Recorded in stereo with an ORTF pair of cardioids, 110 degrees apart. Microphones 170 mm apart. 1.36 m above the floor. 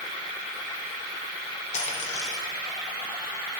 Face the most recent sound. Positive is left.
turn(degrees=45)